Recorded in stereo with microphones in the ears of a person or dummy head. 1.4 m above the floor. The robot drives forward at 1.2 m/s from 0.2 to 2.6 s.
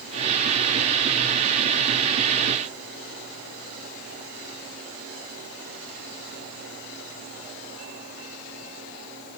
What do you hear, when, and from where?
Only background noise.